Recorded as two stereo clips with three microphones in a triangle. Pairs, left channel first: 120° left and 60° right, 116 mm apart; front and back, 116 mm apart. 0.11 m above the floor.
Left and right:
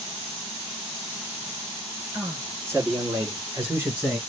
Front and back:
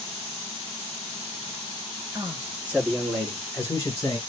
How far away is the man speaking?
About 2 m.